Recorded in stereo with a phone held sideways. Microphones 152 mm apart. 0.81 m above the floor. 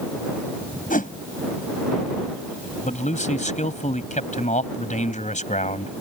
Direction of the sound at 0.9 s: 70° left (ahead or behind).